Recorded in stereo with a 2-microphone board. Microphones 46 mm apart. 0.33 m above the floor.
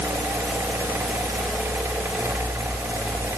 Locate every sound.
Only background noise.